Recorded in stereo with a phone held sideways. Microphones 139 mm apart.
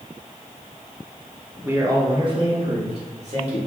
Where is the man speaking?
15° right (ahead or behind), 0.7 m; by 3.6 s 55° right (ahead or behind), 1.8 m.